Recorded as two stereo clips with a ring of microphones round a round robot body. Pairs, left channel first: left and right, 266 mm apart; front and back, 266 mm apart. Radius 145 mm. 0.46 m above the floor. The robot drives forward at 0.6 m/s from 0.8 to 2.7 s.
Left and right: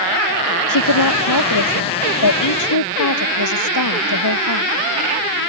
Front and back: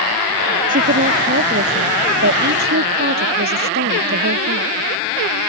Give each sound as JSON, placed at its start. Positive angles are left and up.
{"t": 0.7, "sound": "a woman speaking", "azimuth_deg": 115}